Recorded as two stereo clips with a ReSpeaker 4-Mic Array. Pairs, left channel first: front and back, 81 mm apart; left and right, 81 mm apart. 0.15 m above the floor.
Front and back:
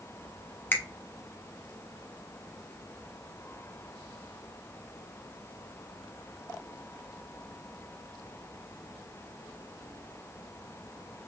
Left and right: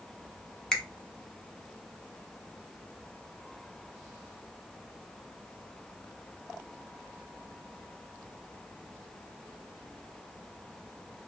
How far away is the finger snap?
About 0.9 m.